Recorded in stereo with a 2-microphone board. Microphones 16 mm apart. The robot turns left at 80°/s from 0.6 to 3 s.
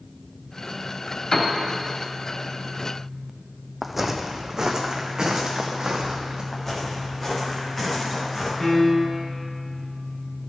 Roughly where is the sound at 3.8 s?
Centre.